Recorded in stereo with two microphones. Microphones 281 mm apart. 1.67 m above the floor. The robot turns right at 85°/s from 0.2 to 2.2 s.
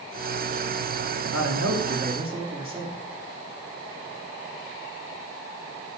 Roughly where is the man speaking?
Right.